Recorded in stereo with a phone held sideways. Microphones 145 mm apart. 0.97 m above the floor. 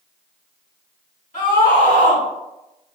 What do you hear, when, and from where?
1.3 s a scream: 70° left (ahead or behind), 1.7 m